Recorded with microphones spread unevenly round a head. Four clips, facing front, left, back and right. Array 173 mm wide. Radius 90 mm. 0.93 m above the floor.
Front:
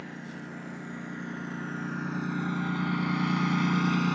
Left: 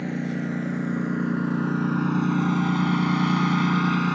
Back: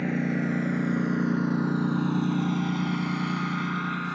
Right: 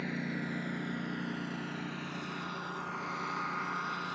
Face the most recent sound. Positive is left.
turn(degrees=65)